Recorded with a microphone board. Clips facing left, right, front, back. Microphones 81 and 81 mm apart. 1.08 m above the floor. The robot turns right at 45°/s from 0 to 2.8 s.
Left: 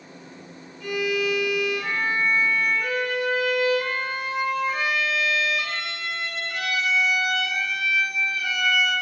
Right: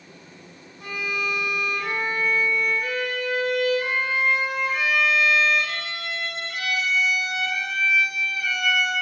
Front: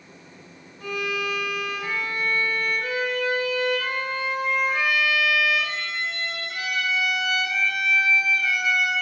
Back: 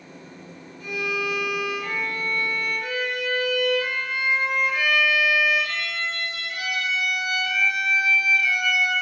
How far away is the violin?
About 4.5 m.